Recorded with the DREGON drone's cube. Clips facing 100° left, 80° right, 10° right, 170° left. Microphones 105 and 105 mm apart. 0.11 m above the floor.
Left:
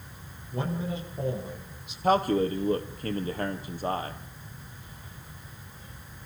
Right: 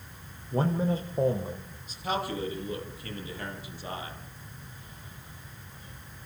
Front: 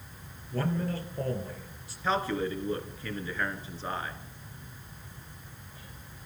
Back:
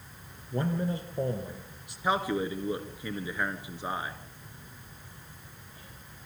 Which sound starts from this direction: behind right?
A man speaking, at 0.5 s.